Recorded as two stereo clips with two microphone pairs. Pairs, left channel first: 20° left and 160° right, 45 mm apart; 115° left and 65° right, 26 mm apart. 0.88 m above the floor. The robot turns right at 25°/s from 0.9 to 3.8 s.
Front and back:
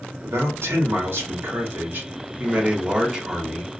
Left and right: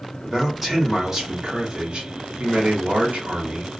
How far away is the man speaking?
About 1.2 m.